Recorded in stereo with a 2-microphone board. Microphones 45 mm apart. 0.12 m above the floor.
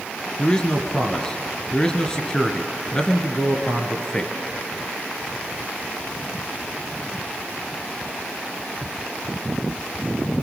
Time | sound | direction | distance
0.4 | a man speaking | 20° left (ahead or behind) | 1.6 m